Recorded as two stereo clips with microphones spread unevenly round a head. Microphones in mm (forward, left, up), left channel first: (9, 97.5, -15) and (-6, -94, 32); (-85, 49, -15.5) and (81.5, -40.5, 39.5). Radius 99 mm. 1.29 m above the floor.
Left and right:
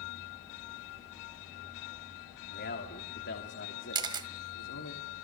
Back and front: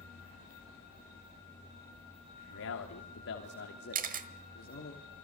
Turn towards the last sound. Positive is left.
turn(degrees=-40)